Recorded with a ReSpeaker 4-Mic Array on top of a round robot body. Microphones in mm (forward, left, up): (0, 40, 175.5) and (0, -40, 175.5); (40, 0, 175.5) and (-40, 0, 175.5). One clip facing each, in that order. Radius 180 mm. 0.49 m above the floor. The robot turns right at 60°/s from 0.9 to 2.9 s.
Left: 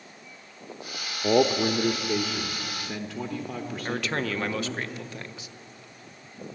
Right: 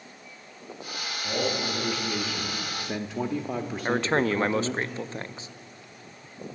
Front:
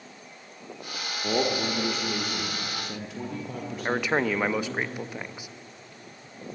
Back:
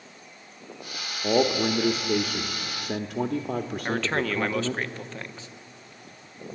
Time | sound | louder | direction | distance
1.2 | a man speaking | left 8 dB, back 4 dB | 110° left | 1.0 m
3.9 | a man speaking | right 6 dB, front 3 dB | 65° right | 0.8 m